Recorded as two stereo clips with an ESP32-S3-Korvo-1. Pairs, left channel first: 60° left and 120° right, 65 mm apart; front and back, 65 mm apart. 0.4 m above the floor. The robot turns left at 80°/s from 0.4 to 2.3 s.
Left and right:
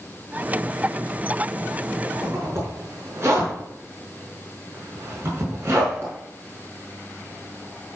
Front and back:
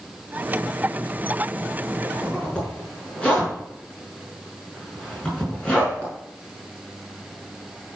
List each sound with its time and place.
2.0 s a zipper: 50° right, 5.5 m; by 6.1 s 70° right, 5.5 m